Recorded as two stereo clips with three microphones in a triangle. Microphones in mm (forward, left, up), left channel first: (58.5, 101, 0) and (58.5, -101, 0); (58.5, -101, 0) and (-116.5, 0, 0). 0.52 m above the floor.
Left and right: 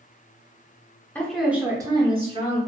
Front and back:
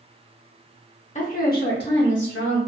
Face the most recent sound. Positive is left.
turn(degrees=-35)